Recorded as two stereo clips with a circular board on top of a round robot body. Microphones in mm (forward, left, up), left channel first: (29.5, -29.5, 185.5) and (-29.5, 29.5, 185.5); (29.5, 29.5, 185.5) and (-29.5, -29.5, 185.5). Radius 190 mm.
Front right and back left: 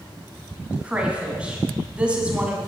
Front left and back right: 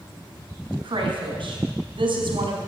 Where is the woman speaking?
150° right, 3.5 m.